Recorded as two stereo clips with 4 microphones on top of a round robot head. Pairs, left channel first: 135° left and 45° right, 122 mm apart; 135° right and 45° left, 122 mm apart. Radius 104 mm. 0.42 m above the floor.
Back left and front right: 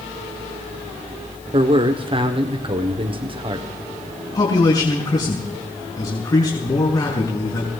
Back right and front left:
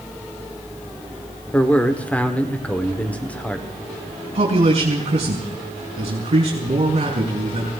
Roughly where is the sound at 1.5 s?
Ahead right.